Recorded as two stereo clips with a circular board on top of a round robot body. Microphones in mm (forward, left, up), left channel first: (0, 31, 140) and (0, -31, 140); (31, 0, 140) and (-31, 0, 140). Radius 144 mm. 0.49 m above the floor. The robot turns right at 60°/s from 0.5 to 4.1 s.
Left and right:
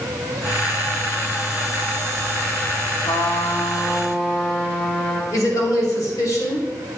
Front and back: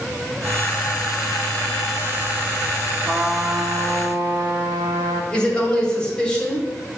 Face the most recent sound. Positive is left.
turn(degrees=75)